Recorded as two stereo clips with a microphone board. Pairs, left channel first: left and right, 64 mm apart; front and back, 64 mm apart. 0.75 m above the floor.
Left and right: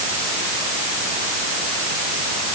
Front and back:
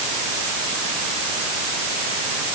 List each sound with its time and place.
Only background noise.